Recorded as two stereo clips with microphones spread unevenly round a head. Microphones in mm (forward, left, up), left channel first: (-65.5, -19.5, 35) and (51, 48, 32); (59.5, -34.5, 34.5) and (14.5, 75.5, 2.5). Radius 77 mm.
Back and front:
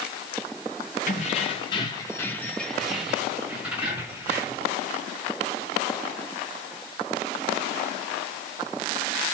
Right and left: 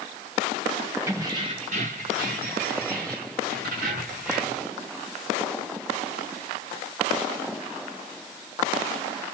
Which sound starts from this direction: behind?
Keys jangling, at 1.1 s.